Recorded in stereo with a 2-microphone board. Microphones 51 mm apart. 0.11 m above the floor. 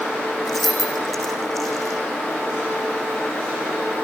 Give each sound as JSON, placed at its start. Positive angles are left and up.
{"t": 0.5, "sound": "keys jangling", "side_deg": 5, "distance_m": 5.0}